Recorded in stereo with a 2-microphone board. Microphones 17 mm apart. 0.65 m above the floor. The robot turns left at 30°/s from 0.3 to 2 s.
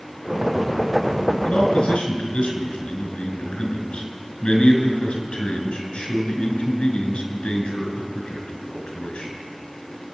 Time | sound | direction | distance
1.4 | a man speaking | 80° left | 4.5 m